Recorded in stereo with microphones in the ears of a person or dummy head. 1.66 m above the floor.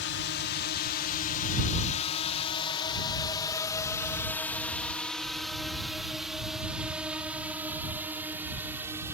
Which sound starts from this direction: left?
A drone, at 0.0 s.